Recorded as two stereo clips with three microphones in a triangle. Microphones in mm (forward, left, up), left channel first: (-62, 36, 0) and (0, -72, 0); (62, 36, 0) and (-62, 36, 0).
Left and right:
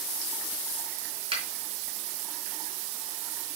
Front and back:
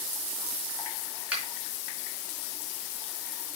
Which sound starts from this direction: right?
A finger snap, at 1.3 s.